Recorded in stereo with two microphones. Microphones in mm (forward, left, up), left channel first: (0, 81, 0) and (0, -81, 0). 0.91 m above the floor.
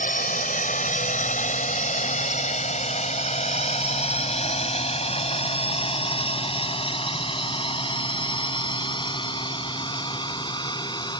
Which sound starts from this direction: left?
A drone, at 0.0 s.